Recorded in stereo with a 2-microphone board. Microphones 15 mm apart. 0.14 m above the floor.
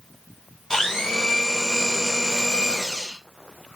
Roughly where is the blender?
Left.